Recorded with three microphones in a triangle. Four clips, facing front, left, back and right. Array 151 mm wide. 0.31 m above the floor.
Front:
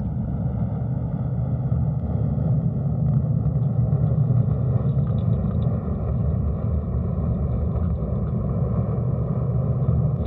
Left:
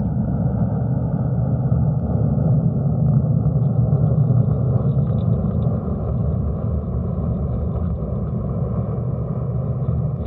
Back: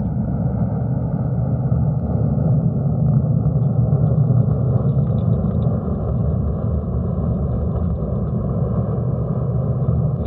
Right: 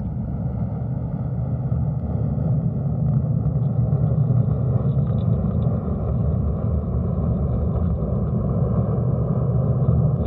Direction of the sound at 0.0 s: 135° left.